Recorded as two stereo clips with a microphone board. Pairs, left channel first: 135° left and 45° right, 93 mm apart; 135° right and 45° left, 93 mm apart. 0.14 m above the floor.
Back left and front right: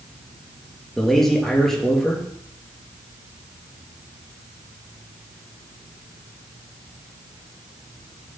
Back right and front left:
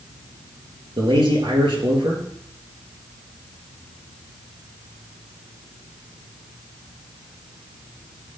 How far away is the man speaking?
About 3 m.